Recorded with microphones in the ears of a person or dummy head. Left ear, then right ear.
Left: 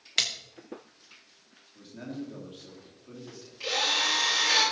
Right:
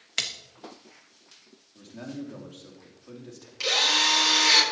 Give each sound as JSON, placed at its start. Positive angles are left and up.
{"t": 0.2, "sound": "a splash", "side_deg": 0, "distance_m": 0.9}
{"t": 1.8, "sound": "a man speaking", "side_deg": -25, "distance_m": 3.0}
{"t": 3.6, "sound": "a drill", "side_deg": -55, "distance_m": 3.5}